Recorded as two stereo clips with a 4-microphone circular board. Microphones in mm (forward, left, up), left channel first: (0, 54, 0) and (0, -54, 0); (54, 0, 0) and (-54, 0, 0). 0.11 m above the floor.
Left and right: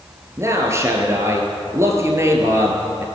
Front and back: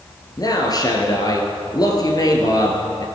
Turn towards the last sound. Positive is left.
turn(degrees=-35)